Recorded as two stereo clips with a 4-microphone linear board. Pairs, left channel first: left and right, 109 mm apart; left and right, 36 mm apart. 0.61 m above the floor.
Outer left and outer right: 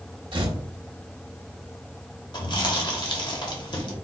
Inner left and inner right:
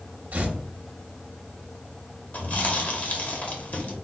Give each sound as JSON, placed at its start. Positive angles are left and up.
{"t": 0.3, "sound": "tearing paper", "side_deg": -50, "distance_m": 0.8}
{"t": 2.3, "sound": "chewing", "side_deg": 45, "distance_m": 0.9}